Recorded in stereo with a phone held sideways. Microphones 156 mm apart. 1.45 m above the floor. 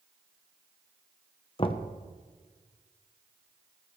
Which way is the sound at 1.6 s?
35° left (ahead or behind).